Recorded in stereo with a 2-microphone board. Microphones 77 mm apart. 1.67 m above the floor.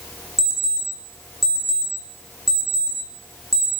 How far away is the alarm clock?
About 0.7 m.